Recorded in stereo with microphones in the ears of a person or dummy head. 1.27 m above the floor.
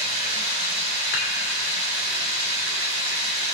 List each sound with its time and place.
0.0 s running water: 70° right (ahead or behind), 3.5 m
1.1 s dishes clattering: 65° left (ahead or behind), 2 m